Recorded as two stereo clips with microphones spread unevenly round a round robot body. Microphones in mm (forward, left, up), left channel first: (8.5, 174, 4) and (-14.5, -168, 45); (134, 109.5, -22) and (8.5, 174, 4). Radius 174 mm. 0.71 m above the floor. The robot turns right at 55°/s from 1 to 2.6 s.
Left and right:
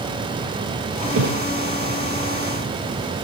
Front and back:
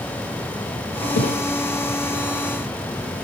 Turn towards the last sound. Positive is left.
turn(degrees=40)